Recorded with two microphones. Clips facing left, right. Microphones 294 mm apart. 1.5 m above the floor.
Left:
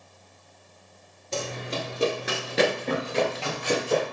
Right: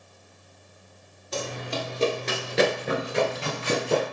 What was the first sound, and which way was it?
Running footsteps, 30° left (ahead or behind).